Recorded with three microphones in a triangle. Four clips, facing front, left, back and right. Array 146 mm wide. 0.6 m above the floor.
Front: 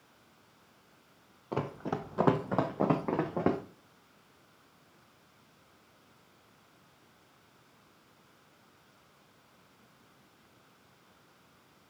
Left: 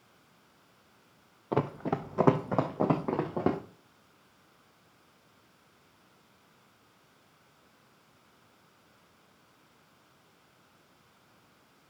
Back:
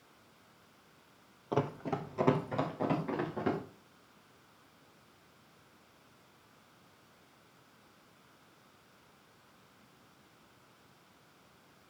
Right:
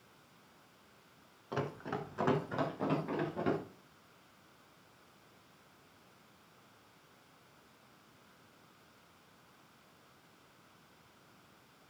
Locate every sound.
1.5 s running footsteps: 100° left, 1.2 m; by 3.6 s 55° left, 3 m